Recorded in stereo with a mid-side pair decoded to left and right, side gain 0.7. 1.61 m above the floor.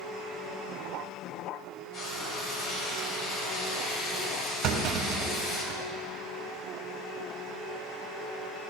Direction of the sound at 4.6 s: 50° right.